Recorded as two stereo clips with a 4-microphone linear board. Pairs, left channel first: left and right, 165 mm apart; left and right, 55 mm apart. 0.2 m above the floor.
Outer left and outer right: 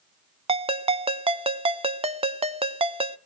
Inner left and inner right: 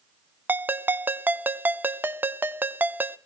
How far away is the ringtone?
About 0.6 m.